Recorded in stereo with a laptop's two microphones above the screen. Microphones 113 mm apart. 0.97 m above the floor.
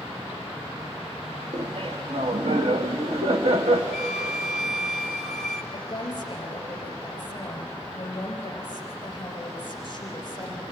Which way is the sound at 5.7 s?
40° left (ahead or behind).